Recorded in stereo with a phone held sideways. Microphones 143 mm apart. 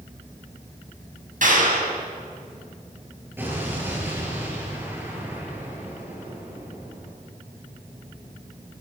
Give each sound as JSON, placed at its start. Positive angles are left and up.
{"t": 1.4, "sound": "a clap", "side_deg": -70, "distance_m": 6.5}
{"t": 3.4, "sound": "an explosion", "side_deg": -15, "distance_m": 7.0}